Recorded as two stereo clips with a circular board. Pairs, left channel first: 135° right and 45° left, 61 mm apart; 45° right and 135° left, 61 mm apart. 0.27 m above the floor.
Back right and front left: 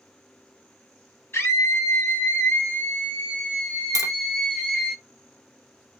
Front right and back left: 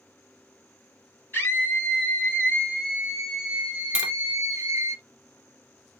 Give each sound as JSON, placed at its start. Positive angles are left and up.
{"t": 1.3, "sound": "a scream", "azimuth_deg": -90, "distance_m": 1.6}
{"t": 4.0, "sound": "tapping", "azimuth_deg": -150, "distance_m": 0.9}